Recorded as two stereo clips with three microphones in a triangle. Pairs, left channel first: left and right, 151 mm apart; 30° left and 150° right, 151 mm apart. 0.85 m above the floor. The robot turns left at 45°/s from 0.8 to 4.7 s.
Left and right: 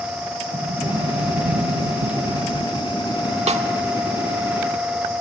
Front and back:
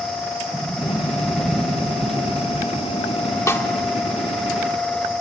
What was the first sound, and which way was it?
A sliding door, 35° right.